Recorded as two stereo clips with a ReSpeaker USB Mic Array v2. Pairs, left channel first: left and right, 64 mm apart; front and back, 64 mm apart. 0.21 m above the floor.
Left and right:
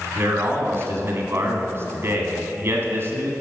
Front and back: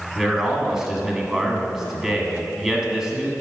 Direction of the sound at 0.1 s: 100° right.